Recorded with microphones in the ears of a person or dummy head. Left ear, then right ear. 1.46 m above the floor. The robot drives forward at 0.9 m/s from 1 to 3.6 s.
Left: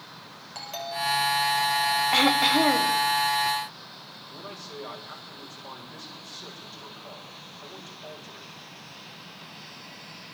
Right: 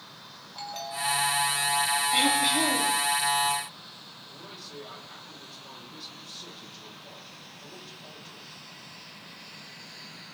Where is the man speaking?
55° left (ahead or behind), 7.5 m.